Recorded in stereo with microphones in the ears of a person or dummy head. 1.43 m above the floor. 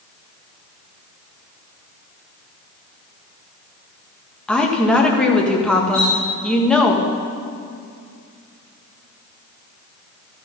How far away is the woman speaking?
About 1.6 m.